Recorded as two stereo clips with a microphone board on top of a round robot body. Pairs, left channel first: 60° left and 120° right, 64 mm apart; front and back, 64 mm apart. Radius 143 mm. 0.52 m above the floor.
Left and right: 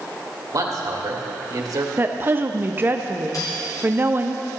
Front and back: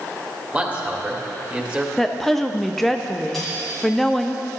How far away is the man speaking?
About 2.0 m.